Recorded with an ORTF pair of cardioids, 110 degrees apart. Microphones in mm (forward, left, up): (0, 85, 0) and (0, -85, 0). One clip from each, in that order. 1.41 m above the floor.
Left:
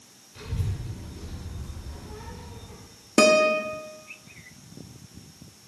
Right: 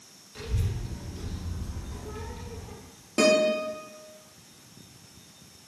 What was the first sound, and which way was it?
A child speaking, 30° right.